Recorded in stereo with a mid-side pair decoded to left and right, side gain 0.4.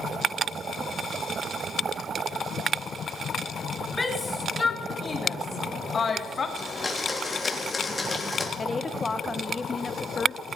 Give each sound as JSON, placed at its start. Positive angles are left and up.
{"t": 4.0, "sound": "a shout", "azimuth_deg": 25, "distance_m": 4.0}
{"t": 6.6, "sound": "a blender", "azimuth_deg": 30, "distance_m": 3.5}
{"t": 8.6, "sound": "a woman speaking", "azimuth_deg": 30, "distance_m": 1.7}